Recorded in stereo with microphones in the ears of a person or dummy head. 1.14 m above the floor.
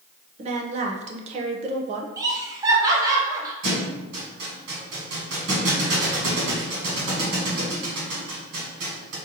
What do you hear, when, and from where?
0.4 s a woman speaking: 35° right (ahead or behind), 0.6 m
2.2 s laughter: 20° right (ahead or behind), 0.9 m
3.6 s a thud: 70° right (ahead or behind), 1.7 m